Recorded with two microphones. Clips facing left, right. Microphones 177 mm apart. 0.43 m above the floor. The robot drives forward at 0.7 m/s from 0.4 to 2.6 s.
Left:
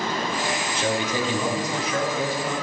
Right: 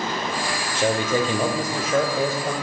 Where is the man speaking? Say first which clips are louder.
Right 6 dB; 50° right (ahead or behind), 1.3 m; by 2.5 s 40° right (ahead or behind), 1.4 m.